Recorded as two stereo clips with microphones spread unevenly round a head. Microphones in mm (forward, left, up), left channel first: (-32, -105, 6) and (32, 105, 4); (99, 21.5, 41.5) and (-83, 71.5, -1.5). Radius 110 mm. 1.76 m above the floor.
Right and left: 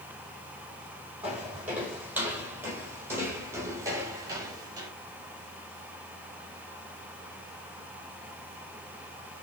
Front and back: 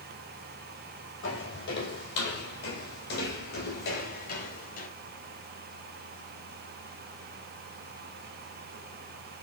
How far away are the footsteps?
About 5 m.